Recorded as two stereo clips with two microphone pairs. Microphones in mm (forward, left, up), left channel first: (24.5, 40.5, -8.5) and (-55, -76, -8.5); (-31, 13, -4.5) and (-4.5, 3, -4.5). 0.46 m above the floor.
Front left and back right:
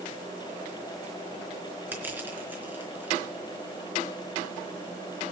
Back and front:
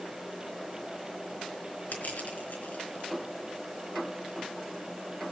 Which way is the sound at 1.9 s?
160° left.